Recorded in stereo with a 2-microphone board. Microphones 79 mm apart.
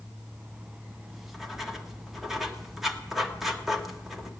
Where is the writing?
5° right (ahead or behind), 1.2 m.